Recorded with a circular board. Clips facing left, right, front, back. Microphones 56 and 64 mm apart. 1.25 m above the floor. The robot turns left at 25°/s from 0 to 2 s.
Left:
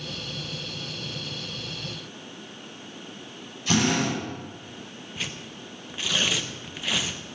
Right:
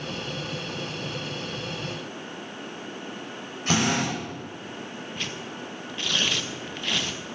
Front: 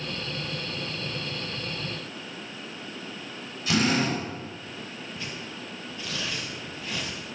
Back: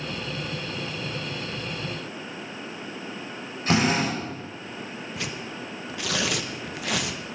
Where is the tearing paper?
175° left, 0.8 m.